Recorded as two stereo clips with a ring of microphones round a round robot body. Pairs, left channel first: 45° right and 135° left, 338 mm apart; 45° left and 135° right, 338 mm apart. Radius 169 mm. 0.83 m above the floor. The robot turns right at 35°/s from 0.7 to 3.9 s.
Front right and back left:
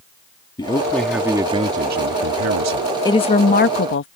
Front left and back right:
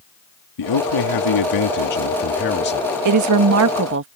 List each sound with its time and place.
0.6 s a man speaking: 30° left; by 2.9 s 110° left
3.0 s a woman speaking: 120° right; by 4.1 s 90° right